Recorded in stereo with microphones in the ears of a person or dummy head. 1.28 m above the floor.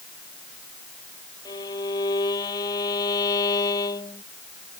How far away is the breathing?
No breathing in this recording.